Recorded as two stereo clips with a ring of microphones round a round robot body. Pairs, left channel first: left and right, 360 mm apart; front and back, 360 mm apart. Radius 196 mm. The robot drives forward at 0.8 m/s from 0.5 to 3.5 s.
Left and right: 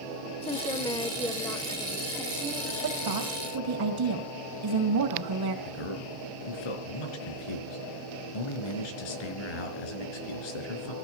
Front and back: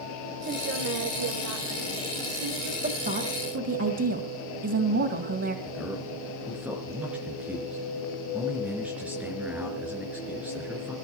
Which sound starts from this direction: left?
A man speaking, at 5.7 s.